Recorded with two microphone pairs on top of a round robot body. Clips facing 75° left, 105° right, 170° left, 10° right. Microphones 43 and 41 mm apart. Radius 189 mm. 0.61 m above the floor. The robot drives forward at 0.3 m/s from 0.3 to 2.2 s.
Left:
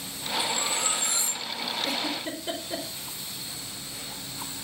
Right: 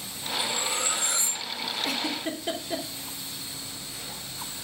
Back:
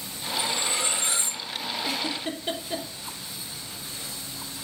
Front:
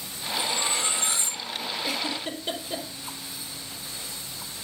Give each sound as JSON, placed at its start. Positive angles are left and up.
{"t": 0.4, "sound": "cutlery clinking", "azimuth_deg": -130, "distance_m": 7.5}
{"t": 1.8, "sound": "a giggle", "azimuth_deg": -125, "distance_m": 3.0}